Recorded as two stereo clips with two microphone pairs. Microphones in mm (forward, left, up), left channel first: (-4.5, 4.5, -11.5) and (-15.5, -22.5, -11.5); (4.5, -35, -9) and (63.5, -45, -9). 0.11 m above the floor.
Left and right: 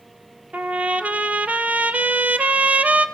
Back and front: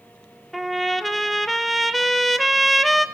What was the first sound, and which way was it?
A trumpet, 95° right.